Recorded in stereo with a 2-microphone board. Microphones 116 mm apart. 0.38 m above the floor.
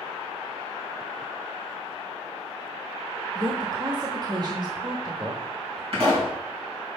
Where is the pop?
55° right (ahead or behind), 4 m.